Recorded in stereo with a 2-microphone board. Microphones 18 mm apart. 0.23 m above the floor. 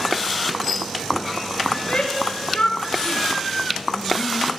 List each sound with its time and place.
1.7 s a shout: 65° left (ahead or behind), 3.5 m; by 4.5 s 15° left (ahead or behind), 2.0 m